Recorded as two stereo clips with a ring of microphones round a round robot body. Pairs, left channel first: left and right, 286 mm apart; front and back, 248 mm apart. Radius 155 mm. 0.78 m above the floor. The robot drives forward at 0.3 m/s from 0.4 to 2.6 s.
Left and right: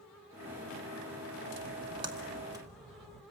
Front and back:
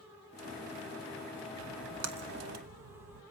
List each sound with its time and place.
1.6 s a splash: 155° right, 0.5 m; by 3.2 s 165° right, 0.8 m